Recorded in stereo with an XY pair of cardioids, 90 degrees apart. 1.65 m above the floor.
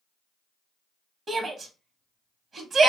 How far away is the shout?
About 0.9 m.